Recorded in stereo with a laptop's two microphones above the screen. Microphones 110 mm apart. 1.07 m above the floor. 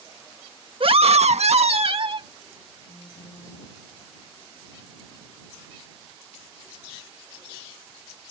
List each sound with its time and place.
0.8 s a scream: 50° right (ahead or behind)
2.9 s a phone buzzing: 60° left (ahead or behind)